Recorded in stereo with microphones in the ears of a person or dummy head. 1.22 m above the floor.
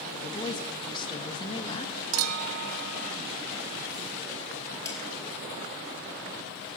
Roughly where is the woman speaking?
Left.